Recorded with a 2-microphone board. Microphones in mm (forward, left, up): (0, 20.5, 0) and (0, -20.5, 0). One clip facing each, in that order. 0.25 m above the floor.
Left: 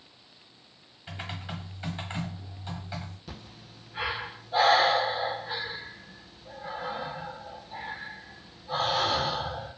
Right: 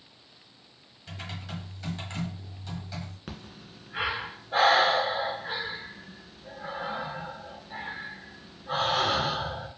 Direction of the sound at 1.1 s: 25° left (ahead or behind).